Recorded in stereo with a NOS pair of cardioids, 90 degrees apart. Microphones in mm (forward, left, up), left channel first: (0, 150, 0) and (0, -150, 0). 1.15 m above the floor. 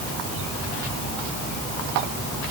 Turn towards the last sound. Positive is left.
No sound to turn to.